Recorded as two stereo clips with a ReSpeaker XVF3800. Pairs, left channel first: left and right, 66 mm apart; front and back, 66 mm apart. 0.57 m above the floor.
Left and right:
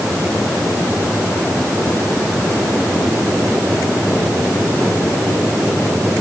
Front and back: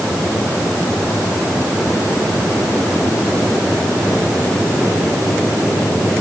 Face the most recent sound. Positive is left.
No sound to turn to.